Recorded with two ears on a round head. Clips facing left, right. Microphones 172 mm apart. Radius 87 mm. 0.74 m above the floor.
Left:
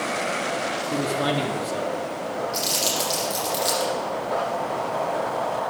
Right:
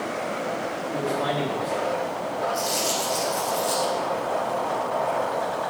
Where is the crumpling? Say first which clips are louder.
Right 1 dB; 85° left, 5.5 m.